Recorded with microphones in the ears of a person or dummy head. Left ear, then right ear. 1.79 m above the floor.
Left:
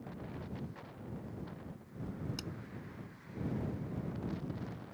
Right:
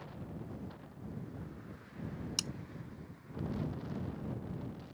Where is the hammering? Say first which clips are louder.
Right 11 dB; 35° right (ahead or behind).